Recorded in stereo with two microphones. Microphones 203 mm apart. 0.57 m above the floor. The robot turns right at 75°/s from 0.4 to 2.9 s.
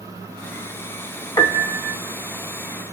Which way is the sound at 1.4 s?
20° left.